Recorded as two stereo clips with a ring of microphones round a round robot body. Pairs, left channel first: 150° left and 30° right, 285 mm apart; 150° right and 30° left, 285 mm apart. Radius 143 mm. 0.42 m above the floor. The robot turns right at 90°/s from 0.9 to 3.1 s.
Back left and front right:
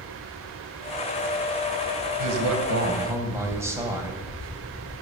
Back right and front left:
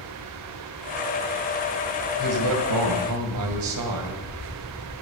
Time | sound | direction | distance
2.2 | a man speaking | 30° right | 2.5 m